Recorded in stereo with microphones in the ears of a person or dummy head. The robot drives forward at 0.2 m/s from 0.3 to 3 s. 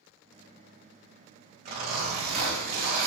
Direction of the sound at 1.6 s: 50° right (ahead or behind).